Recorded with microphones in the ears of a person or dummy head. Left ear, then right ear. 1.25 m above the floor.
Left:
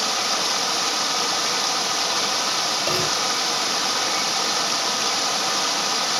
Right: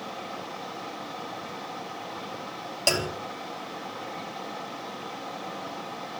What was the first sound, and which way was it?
Running water, 70° left (ahead or behind).